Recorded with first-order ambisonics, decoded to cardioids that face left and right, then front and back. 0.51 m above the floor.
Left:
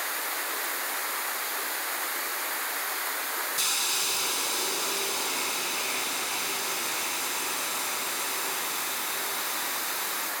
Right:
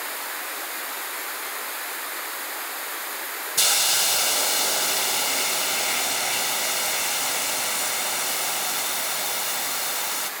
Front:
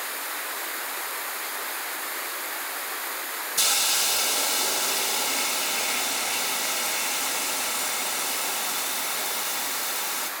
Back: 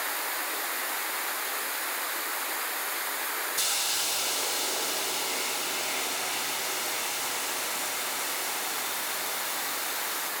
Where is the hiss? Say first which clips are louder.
Right 9 dB, front 7 dB; 70° right, 1.3 m.